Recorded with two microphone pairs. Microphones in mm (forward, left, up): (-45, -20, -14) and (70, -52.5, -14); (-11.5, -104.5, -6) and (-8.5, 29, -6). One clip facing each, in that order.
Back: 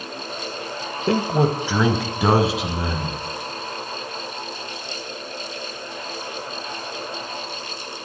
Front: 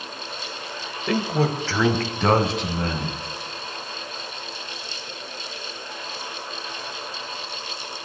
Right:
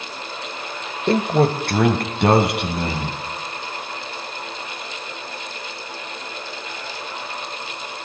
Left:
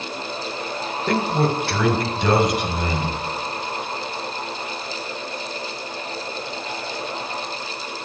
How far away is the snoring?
No snoring in this recording.